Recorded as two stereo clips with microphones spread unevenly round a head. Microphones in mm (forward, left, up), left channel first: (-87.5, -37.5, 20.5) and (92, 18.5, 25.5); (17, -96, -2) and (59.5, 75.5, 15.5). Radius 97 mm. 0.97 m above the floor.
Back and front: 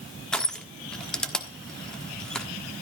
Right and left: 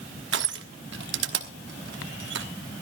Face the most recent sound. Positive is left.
turn(degrees=110)